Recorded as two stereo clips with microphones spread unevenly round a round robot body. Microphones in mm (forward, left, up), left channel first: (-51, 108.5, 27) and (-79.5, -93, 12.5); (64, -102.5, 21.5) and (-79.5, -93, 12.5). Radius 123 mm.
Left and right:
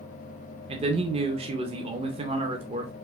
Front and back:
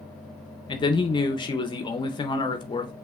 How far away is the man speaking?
About 0.6 m.